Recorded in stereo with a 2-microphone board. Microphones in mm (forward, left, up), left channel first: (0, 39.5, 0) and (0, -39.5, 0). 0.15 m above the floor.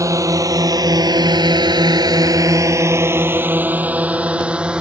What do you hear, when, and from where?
0.0 s a drone: 40° right (ahead or behind); by 4.8 s 10° right (ahead or behind)